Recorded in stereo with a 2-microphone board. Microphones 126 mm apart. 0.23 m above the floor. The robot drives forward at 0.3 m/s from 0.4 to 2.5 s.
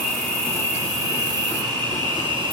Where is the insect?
25° right (ahead or behind), 1.4 m; by 2.5 s 40° right (ahead or behind), 0.9 m.